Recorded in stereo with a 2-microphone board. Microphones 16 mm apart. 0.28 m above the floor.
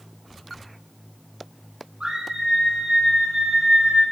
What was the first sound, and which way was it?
A scream, 85° right.